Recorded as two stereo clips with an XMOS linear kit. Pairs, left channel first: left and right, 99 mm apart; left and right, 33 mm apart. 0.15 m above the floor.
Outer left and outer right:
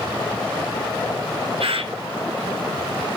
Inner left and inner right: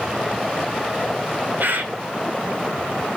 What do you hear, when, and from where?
1.6 s a bird: 85° right, 0.9 m